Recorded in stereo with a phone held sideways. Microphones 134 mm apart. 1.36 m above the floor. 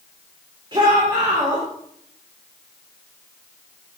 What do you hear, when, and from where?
0.7 s a shout: 35° right (ahead or behind), 4 m